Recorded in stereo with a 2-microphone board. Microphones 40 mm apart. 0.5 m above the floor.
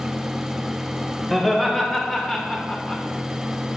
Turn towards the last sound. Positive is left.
turn(degrees=25)  # may be behind; listen again after turning